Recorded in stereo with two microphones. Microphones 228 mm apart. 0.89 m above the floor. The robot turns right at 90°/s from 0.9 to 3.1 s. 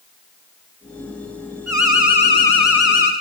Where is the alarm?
75° left, 3.5 m; by 3.1 s 155° right, 3.5 m.